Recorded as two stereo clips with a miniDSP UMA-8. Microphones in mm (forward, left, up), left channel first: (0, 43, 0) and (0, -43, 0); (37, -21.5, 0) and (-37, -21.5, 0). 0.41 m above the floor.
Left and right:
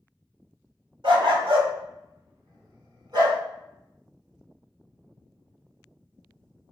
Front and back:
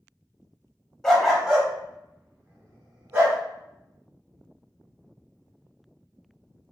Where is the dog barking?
85° right, 0.7 m; by 3.4 s 125° right, 1.6 m.